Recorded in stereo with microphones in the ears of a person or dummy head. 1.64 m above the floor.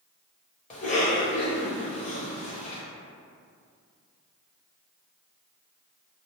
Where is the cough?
40° left (ahead or behind), 1.0 m.